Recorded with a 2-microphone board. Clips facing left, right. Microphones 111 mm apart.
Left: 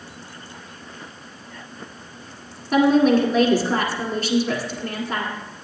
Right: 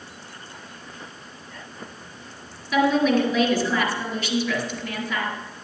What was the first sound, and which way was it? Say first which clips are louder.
A woman speaking: left 4 dB; 45° left (ahead or behind).